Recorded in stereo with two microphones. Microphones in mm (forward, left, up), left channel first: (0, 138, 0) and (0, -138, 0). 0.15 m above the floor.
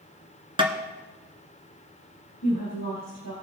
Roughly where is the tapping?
Centre.